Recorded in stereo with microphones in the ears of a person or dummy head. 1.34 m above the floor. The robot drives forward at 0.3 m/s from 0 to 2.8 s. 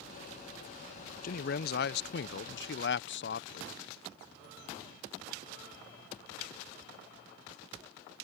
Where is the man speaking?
55° left (ahead or behind); by 3.7 s 60° left (ahead or behind).